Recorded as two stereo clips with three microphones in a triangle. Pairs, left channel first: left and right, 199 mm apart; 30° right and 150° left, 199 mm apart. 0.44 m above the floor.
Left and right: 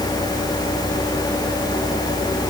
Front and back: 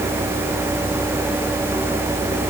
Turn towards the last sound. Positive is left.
No sound to turn to.